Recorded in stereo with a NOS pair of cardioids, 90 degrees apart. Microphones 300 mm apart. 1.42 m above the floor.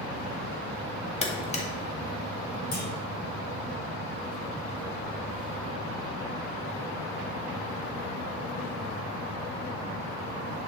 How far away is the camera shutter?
About 2 m.